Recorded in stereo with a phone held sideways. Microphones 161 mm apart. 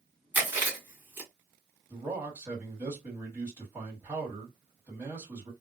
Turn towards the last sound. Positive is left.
turn(degrees=-15)  # may be behind; listen again after turning